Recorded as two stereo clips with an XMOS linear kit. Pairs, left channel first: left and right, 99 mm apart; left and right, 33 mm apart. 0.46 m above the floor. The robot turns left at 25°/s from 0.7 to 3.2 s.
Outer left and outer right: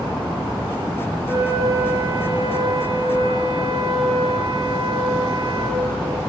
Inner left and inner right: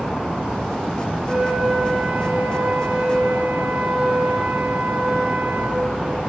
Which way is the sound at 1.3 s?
25° right.